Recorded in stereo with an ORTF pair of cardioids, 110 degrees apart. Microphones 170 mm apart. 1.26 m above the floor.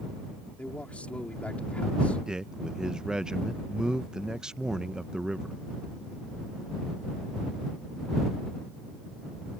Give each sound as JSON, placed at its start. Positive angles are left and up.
{"t": 0.6, "sound": "a man speaking", "azimuth_deg": 5}
{"t": 2.3, "sound": "a man speaking", "azimuth_deg": -5}